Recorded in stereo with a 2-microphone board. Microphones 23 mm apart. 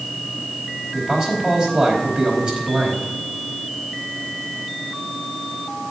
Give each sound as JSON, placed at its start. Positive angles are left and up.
{"t": 0.9, "sound": "a man speaking", "side_deg": -35, "distance_m": 4.5}